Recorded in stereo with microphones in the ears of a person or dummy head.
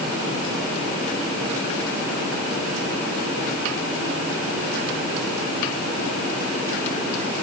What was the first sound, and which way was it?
Only background noise.